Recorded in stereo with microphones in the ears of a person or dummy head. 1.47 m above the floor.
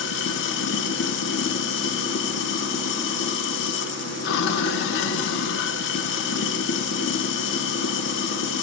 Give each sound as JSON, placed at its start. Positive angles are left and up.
{"t": 0.0, "sound": "running water", "side_deg": 60, "distance_m": 0.8}